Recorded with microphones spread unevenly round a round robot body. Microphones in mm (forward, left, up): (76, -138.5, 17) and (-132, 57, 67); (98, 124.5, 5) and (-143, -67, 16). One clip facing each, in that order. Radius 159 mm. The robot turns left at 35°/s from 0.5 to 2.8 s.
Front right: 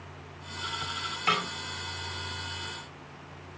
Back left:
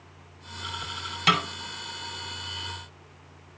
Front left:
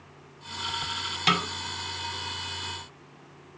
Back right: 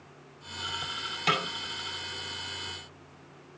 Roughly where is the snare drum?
Left.